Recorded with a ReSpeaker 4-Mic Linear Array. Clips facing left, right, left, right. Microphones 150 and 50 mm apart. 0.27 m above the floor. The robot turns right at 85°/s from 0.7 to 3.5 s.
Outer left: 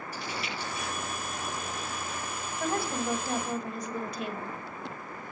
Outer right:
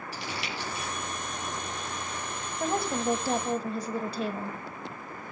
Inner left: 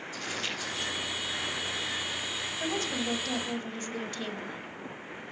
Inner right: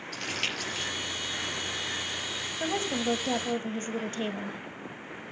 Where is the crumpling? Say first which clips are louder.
Even, inner right 3 dB; 80° right, 5 m.